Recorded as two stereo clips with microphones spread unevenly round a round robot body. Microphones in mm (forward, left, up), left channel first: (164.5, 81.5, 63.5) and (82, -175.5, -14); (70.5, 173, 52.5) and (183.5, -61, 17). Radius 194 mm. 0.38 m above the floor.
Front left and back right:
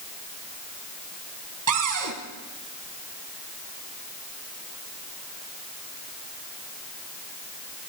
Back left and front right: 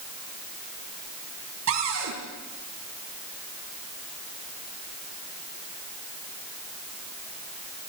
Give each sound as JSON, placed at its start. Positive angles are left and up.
{"t": 1.7, "sound": "a cupboard door", "azimuth_deg": -105, "distance_m": 3.5}